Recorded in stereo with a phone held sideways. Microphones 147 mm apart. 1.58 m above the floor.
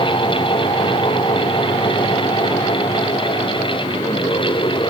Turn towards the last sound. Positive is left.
turn(degrees=30)  # may be behind; listen again after turning